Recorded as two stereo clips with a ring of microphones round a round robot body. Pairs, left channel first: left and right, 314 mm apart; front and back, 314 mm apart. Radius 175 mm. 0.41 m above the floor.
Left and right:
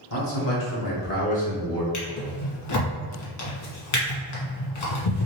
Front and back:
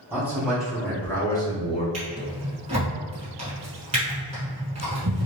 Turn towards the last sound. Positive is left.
turn(degrees=105)